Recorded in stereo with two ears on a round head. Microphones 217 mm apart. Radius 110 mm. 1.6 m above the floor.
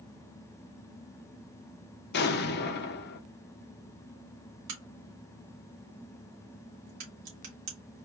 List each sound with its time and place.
2.1 s an explosion: 45° left (ahead or behind), 0.7 m
4.7 s a crack: 80° right, 2.5 m